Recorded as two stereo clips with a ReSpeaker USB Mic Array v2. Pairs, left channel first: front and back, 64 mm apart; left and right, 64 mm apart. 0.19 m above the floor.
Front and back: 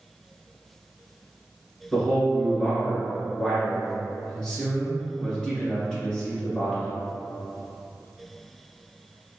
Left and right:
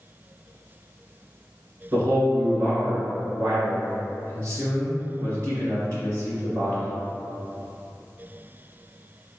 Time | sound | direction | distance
1.9 | a man speaking | 85° right | 1.7 m